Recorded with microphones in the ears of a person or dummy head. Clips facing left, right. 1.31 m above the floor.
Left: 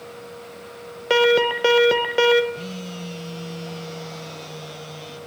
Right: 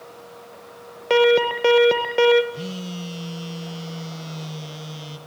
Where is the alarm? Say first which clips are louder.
Right 1 dB; 5° left (ahead or behind), 1.9 m.